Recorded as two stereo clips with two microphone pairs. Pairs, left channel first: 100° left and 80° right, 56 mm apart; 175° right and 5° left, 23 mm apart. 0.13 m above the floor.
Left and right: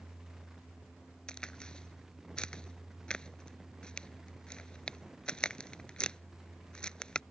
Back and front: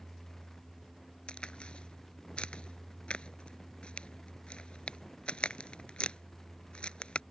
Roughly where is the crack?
Behind.